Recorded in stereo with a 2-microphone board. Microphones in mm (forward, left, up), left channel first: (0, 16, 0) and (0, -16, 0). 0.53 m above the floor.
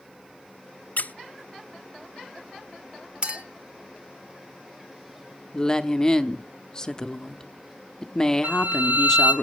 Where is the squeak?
60° left (ahead or behind), 0.5 m.